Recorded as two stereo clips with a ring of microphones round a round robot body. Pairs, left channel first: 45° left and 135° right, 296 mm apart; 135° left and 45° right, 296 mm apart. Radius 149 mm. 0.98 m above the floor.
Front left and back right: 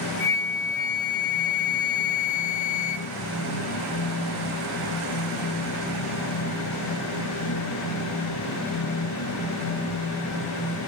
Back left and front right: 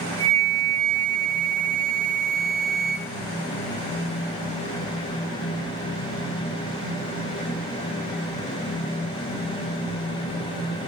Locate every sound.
0.2 s a flute: 155° left, 2.5 m